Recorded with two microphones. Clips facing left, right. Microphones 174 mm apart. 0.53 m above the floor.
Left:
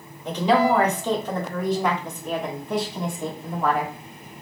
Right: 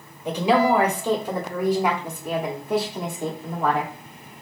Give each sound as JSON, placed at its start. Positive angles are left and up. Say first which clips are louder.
{"t": 0.2, "sound": "a woman speaking", "louder": "even", "side_deg": -10, "distance_m": 1.7}